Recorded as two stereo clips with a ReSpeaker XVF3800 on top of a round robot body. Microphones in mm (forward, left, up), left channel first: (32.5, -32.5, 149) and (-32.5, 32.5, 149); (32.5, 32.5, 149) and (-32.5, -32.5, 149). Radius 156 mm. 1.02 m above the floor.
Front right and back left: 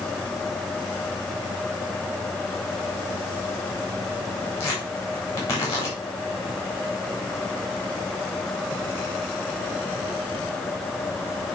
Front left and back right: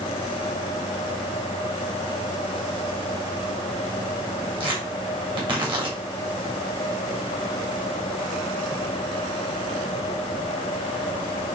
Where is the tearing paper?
105° right, 3.5 m.